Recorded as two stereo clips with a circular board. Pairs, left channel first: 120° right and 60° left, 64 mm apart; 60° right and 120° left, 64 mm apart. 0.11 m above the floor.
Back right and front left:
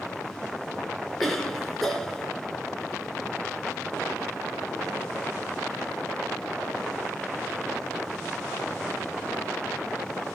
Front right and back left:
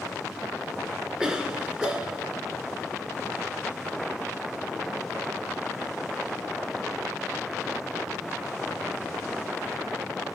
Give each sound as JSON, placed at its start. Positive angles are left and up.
{"t": 1.2, "sound": "a cough", "azimuth_deg": 165, "distance_m": 1.1}